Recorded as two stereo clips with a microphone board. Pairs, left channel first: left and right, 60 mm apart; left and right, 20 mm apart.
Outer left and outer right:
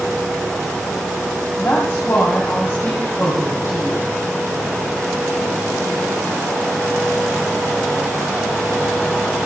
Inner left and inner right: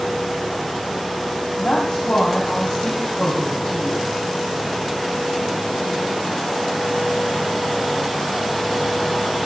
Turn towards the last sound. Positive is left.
turn(degrees=40)  # may be behind; listen again after turning